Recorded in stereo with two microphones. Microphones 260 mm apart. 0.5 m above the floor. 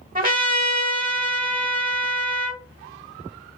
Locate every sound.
0.1 s a trumpet: 35° right (ahead or behind), 0.8 m